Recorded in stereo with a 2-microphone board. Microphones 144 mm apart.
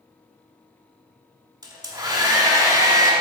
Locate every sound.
1.6 s a hair dryer: 25° right (ahead or behind), 1.2 m